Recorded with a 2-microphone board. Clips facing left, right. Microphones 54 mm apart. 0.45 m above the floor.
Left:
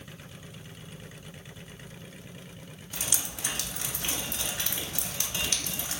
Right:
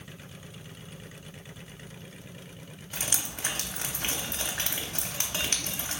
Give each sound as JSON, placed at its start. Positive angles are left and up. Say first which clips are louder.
{"t": 2.9, "sound": "dripping", "louder": "right 1 dB", "side_deg": -45, "distance_m": 0.6}